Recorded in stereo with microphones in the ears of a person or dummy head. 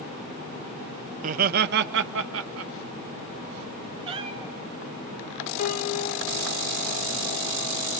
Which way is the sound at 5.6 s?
50° left (ahead or behind).